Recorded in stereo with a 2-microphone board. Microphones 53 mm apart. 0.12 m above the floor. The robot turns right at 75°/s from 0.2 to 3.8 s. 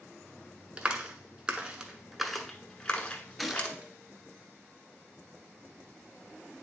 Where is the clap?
20° right (ahead or behind), 1.0 m; by 3.8 s 20° left (ahead or behind), 1.0 m.